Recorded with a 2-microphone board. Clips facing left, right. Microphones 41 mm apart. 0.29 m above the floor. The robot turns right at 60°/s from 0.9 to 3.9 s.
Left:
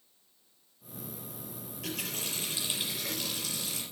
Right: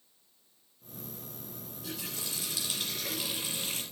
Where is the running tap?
105° left, 4.5 m; by 3.8 s 135° right, 4.5 m.